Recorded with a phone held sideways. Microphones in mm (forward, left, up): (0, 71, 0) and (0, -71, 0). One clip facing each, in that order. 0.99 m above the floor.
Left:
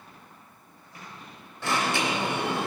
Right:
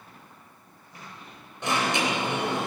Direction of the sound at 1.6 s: 20° right (ahead or behind).